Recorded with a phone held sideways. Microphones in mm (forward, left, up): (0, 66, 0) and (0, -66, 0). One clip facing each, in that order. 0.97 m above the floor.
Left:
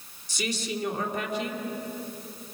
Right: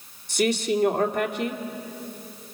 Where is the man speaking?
60° right (ahead or behind), 2.5 m.